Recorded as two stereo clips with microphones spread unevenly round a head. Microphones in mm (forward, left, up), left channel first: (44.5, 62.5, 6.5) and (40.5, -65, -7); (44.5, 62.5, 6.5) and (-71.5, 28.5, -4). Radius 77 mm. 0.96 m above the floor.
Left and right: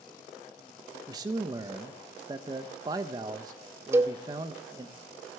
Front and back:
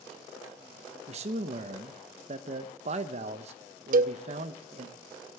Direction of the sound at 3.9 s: 170° right.